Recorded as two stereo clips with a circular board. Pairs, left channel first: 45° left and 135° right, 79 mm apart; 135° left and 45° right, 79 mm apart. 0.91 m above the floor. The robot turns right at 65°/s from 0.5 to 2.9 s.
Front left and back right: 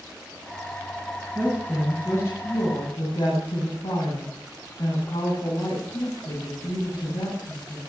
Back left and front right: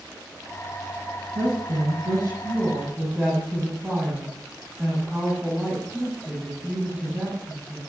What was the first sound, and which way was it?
A woman speaking, 70° right.